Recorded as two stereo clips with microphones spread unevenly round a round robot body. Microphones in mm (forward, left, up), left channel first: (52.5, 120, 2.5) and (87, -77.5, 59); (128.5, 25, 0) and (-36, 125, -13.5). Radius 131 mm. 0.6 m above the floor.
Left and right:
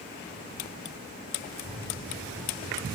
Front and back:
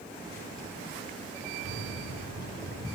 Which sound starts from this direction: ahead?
A microwave, at 1.6 s.